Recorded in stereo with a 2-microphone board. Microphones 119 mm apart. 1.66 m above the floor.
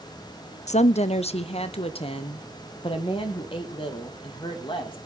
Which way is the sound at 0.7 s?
75° left (ahead or behind).